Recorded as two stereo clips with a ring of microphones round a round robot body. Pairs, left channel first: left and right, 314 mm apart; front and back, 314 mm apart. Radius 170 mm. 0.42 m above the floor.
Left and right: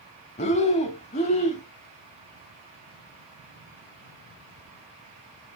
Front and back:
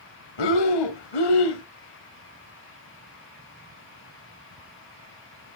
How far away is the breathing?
About 0.8 m.